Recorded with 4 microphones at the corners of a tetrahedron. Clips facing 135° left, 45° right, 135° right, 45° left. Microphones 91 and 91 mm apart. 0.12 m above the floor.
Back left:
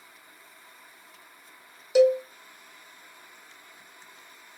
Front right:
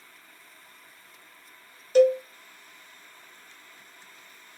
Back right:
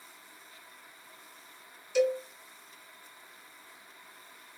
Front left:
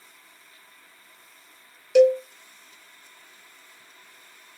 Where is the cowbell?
55° left, 0.7 m.